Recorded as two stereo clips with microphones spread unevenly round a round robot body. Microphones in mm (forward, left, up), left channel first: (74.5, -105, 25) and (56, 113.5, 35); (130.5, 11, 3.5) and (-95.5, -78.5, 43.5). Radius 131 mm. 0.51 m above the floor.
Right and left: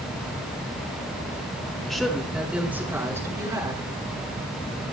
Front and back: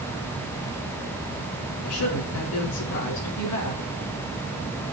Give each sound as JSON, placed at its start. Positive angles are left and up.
{"t": 1.9, "sound": "a woman speaking", "azimuth_deg": 5, "distance_m": 6.0}